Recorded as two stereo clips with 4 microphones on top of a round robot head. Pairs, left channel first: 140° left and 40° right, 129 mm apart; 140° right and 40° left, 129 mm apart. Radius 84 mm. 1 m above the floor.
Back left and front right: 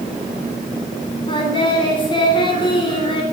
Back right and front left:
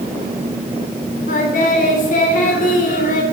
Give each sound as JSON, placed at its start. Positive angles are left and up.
{"t": 1.3, "sound": "singing", "azimuth_deg": -165, "distance_m": 3.0}